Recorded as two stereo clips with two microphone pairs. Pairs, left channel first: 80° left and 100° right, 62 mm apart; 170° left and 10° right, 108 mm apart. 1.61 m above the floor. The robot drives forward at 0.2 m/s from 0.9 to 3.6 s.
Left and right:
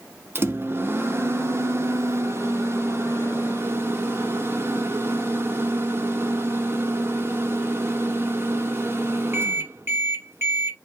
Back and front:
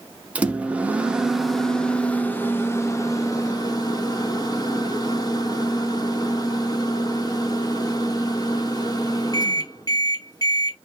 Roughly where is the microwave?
Right.